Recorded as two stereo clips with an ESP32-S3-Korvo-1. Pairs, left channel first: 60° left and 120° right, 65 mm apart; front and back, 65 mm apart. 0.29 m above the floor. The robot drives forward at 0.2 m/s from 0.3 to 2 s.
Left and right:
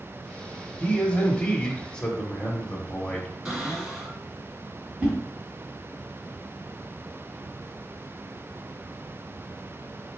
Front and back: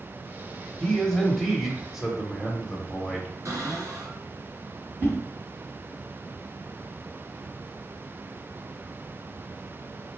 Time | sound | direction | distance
0.8 | a man speaking | 65° left | 0.9 m
3.5 | a cupboard door | 155° left | 2.5 m
5.0 | a whoosh | 160° right | 1.2 m